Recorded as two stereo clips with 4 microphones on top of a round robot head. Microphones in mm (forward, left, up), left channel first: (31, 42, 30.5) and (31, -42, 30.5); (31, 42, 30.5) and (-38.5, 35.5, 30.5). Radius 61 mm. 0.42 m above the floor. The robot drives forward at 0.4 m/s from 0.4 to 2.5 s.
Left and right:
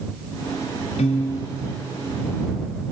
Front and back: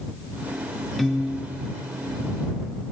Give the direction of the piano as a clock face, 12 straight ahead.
9 o'clock.